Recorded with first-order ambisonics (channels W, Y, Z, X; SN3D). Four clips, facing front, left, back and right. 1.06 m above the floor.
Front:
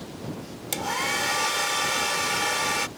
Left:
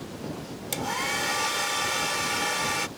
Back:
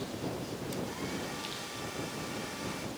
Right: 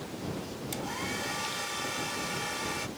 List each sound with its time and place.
0.7 s a hair dryer: 25° left